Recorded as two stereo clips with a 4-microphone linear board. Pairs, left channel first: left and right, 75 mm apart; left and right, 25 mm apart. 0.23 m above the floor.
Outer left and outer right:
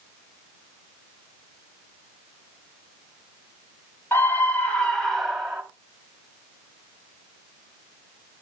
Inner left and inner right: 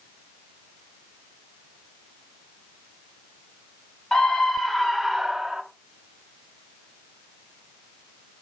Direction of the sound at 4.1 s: 30° left (ahead or behind).